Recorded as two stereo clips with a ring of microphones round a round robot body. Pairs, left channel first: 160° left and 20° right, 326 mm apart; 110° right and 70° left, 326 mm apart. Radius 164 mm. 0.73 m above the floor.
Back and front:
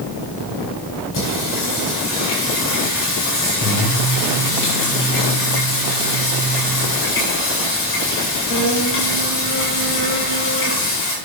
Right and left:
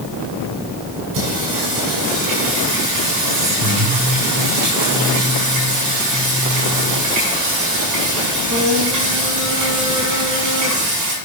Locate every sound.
1.1 s singing: 105° left, 8.5 m